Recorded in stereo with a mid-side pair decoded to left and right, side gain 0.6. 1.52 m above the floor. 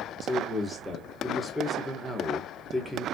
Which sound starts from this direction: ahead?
A man speaking, at 0.2 s.